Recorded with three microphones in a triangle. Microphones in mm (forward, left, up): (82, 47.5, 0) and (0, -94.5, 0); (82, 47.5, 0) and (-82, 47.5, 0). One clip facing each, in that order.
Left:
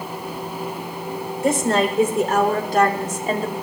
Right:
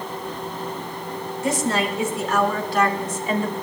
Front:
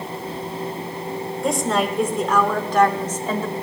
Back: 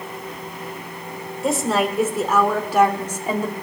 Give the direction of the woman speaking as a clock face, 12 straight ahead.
9 o'clock.